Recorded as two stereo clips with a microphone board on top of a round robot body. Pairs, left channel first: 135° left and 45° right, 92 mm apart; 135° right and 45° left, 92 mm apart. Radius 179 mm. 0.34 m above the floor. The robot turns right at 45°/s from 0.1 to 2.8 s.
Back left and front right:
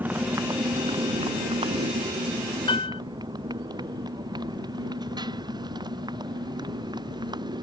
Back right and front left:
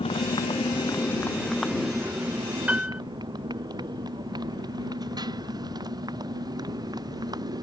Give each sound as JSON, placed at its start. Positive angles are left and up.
{"t": 0.0, "sound": "a motorcycle", "azimuth_deg": -115}
{"t": 2.7, "sound": "a piano", "azimuth_deg": 115}